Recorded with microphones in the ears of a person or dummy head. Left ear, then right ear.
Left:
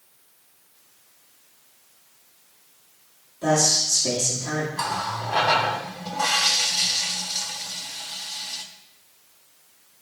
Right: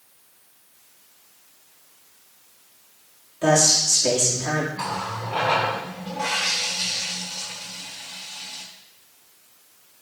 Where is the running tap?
40° left (ahead or behind), 2 m.